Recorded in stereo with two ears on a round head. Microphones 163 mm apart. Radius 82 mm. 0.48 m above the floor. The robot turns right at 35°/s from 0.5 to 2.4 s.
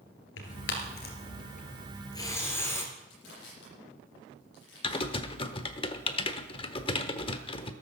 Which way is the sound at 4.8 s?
30° left (ahead or behind).